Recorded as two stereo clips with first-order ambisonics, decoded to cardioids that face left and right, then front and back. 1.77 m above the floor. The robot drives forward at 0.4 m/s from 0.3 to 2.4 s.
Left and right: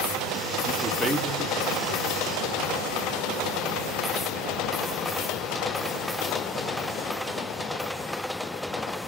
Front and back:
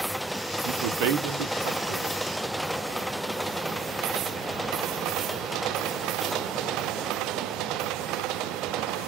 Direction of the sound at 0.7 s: 160° right.